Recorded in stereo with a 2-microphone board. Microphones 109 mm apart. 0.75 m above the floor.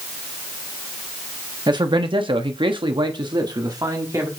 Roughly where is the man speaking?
Right.